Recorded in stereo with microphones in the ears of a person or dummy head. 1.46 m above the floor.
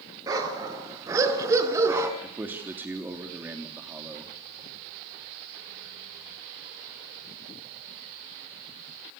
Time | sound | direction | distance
0.3 | a dog barking | 20° right (ahead or behind) | 5.5 m
2.2 | a man speaking | 10° right (ahead or behind) | 3 m